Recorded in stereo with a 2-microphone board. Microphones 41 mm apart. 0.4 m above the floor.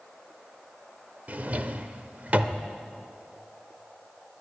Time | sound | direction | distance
1.3 | a drawer | 40° right (ahead or behind) | 0.7 m